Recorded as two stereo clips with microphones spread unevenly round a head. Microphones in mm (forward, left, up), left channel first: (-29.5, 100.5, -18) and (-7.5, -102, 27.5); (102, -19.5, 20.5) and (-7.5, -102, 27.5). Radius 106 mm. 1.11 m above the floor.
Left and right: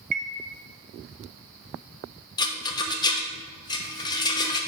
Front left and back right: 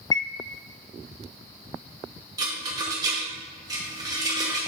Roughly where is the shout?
I don't hear a shout.